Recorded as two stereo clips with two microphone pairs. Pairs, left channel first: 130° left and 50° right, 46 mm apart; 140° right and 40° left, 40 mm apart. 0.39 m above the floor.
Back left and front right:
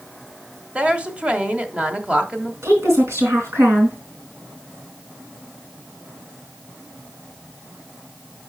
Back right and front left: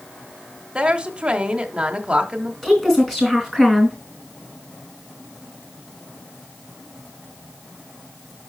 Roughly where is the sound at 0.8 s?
Ahead.